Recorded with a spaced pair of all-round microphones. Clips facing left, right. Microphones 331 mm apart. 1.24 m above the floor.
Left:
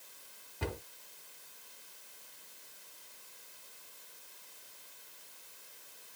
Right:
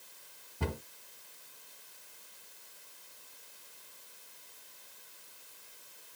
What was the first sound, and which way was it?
A cupboard door, 55° right (ahead or behind).